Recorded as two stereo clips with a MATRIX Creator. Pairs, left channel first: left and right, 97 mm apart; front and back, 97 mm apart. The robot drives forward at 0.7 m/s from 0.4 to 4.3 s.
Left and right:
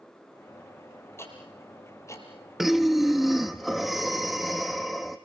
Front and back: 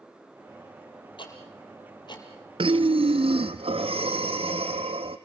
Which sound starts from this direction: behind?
Breathing, at 2.6 s.